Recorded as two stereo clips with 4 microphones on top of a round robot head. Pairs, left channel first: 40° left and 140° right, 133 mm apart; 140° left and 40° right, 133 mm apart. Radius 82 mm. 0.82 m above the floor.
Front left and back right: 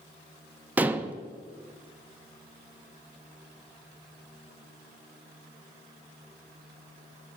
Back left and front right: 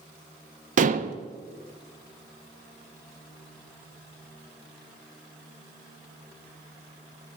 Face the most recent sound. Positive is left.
turn(degrees=-65)